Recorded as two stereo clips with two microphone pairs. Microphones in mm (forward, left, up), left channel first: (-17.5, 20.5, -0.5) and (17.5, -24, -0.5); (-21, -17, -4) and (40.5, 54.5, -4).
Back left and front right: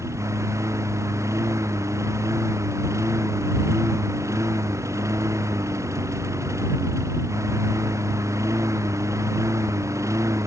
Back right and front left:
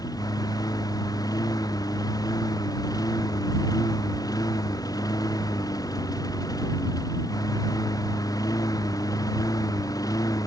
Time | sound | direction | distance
0.0 | a lawn mower | 80° right | ?